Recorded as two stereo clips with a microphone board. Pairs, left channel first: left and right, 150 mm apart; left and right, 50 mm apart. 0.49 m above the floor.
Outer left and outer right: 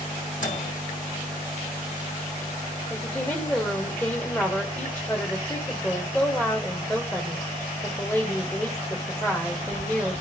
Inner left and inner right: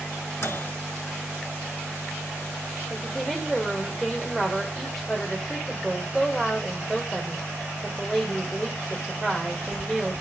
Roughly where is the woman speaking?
Centre.